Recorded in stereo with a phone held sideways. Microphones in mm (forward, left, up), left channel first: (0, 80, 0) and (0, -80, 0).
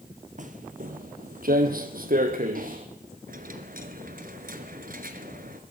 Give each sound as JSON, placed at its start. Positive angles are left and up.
{"t": 0.4, "sound": "footsteps", "side_deg": -55, "distance_m": 1.8}
{"t": 3.3, "sound": "a dropped coin", "side_deg": -60, "distance_m": 2.5}